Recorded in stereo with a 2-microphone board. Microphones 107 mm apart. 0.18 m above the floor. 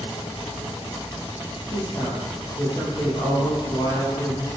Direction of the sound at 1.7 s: 40° left (ahead or behind).